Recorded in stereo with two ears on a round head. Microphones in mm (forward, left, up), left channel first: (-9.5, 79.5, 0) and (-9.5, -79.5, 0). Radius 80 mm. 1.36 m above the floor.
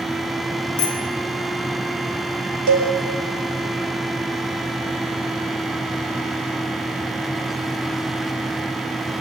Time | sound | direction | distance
0.8 | a bicycle bell | 5° left (ahead or behind) | 2.5 m
2.7 | a cowbell | 85° right | 4.5 m